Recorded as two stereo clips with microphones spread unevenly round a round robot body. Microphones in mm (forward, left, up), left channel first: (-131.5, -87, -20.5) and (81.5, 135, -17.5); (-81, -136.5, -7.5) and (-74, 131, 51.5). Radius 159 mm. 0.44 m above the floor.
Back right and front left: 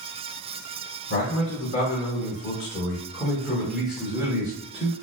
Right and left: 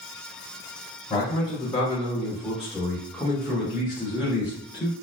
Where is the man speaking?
165° right, 1.8 m; by 4.9 s 10° right, 1.4 m.